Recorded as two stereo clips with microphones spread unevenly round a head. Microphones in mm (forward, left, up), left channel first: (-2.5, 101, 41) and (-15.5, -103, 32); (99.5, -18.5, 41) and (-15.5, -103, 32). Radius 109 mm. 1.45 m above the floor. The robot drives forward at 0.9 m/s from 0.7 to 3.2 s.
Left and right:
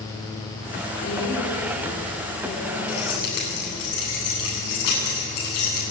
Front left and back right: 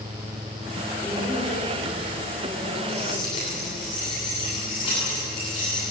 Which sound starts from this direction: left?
Keys jangling, at 2.9 s.